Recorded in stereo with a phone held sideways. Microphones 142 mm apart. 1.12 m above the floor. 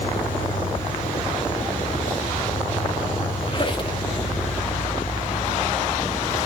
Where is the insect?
75° left (ahead or behind), 5 m.